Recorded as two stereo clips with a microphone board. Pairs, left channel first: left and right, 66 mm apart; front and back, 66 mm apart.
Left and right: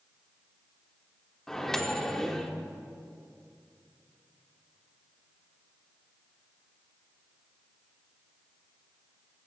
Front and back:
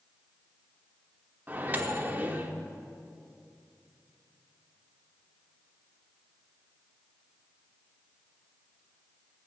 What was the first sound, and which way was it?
A microwave, 165° left.